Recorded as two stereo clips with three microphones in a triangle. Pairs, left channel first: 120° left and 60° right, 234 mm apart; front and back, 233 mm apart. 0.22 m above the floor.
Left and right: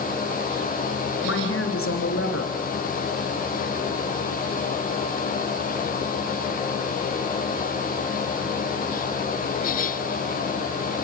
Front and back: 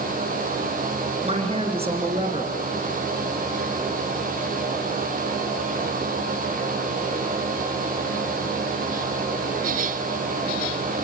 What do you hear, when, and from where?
1.2 s a woman speaking: 115° left, 3.5 m